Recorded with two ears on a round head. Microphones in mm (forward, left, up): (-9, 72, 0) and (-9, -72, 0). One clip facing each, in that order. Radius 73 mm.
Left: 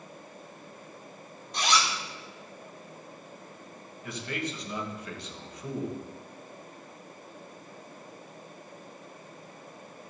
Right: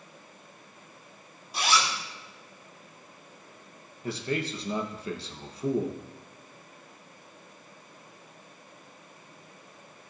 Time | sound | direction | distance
1.5 | a zipper | 5° right (ahead or behind) | 1.7 m
4.0 | a man speaking | 30° right (ahead or behind) | 1.3 m